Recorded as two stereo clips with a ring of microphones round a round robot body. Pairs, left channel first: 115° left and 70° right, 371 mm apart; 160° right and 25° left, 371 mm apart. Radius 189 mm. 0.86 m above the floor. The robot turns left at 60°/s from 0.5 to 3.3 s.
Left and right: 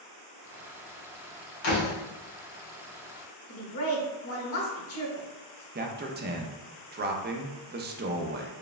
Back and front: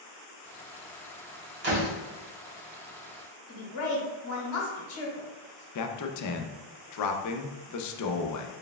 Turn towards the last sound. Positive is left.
turn(degrees=-125)